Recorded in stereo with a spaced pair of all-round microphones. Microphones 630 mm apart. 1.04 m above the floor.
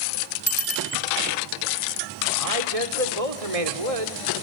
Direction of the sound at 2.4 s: 65° right (ahead or behind).